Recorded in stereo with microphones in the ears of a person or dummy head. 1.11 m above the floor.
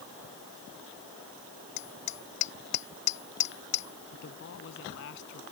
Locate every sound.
1.8 s hammering: 40° left (ahead or behind)
4.1 s a man speaking: 65° left (ahead or behind)